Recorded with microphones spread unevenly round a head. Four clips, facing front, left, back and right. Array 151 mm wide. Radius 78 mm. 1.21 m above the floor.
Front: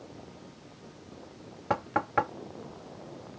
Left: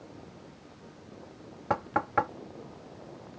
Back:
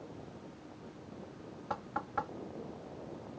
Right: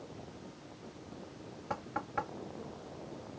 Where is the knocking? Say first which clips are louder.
Left 10 dB, front 10 dB; 35° left.